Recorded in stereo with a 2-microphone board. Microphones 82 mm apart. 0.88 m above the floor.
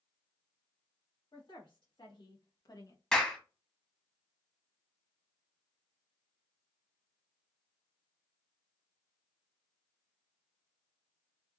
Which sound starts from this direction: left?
A woman speaking, at 1.3 s.